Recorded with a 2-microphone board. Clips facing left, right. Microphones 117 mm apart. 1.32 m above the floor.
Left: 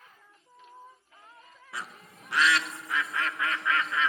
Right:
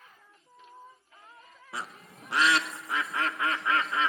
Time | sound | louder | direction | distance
1.7 | a bird | right 1 dB | 30° right (ahead or behind) | 0.5 m